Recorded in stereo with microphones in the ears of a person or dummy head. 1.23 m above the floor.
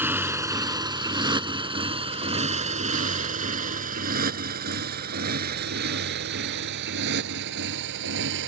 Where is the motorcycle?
5° right (ahead or behind); by 8.5 s 60° right (ahead or behind).